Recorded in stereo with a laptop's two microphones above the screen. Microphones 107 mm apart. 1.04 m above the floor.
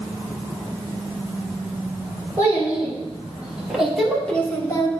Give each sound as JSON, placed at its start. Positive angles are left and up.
{"t": 2.4, "sound": "a child speaking", "side_deg": -20, "distance_m": 2.5}